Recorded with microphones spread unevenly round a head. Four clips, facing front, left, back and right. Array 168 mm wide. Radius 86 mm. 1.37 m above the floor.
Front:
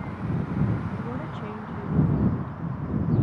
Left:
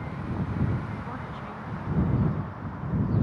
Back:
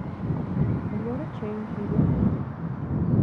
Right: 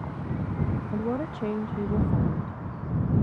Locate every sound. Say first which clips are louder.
0.9 s a woman speaking: right 7 dB, back 2 dB; 110° right